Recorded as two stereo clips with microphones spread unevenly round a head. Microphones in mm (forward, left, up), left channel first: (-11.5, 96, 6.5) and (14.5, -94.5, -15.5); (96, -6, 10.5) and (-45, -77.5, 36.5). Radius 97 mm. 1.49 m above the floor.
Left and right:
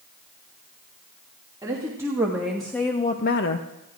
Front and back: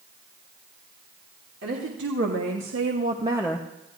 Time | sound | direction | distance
1.6 | a woman speaking | 155° right | 2.5 m